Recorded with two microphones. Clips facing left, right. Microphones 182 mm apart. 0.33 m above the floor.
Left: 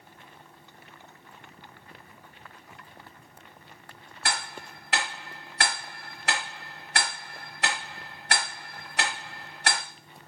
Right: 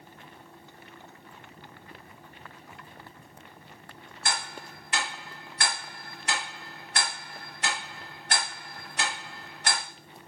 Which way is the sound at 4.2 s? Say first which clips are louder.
Left 1 dB; 70° left (ahead or behind).